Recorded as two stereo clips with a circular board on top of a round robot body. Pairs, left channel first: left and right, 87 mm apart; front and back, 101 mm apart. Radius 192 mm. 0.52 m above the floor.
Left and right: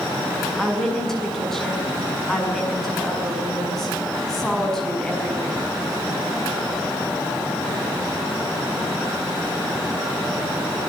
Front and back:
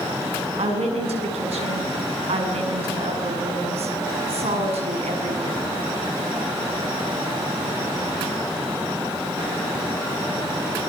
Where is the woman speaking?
175° left, 7 m.